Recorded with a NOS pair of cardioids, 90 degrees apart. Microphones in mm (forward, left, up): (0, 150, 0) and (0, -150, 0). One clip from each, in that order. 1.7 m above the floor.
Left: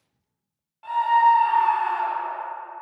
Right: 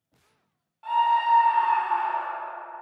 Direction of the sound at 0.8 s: 10° left.